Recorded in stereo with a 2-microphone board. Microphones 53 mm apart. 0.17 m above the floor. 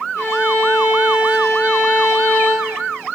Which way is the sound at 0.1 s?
55° left (ahead or behind).